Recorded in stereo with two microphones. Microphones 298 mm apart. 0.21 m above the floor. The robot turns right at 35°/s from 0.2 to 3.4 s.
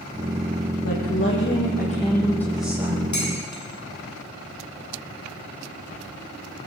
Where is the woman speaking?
120° left, 9 m; by 3.0 s 165° right, 9 m.